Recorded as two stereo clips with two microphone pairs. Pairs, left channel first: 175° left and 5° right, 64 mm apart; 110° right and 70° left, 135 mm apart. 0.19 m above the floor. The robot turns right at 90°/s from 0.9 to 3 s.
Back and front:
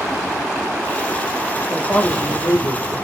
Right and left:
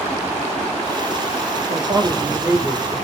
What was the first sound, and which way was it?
A woman speaking, 85° left.